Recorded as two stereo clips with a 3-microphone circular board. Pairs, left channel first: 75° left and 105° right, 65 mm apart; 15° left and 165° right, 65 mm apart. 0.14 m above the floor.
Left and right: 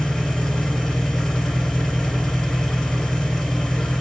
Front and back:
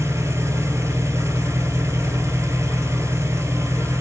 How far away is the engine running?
About 2.5 m.